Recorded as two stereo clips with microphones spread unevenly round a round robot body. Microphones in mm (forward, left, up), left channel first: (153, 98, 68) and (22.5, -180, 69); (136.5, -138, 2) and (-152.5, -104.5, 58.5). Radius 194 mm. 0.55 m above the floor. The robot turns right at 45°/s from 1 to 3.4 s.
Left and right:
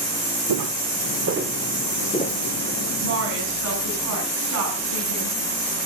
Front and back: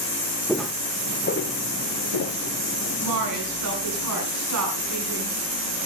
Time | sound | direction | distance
0.5 | footsteps | 105° right | 1.5 m
3.0 | a woman speaking | straight behind | 7 m